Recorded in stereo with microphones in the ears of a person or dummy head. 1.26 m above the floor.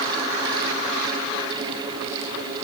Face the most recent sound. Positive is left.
No sound to turn to.